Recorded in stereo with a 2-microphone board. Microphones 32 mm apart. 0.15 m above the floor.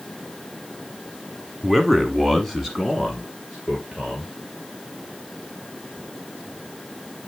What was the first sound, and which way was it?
A man speaking, 5° left (ahead or behind).